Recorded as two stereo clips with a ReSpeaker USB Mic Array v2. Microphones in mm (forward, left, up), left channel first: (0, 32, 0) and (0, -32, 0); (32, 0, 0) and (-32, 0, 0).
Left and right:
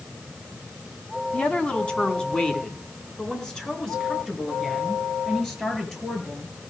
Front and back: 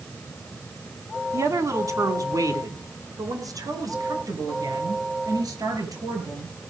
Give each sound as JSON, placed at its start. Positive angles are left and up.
{"t": 1.3, "sound": "a woman speaking", "azimuth_deg": 160, "distance_m": 3.0}